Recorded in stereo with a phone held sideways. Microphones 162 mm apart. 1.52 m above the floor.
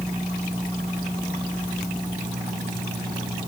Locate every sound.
Only background noise.